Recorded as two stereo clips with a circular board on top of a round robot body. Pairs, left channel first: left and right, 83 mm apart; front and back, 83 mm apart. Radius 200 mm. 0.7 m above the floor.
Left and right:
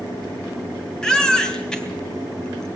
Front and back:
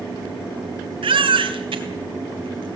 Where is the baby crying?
170° left, 2.5 m.